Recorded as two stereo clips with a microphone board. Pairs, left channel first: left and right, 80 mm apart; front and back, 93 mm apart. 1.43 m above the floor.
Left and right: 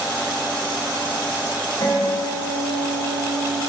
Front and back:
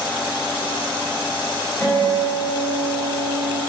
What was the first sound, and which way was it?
A guitar, 70° left.